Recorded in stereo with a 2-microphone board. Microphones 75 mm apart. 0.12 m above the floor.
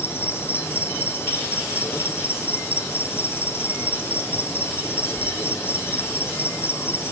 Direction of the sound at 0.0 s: 30° left (ahead or behind).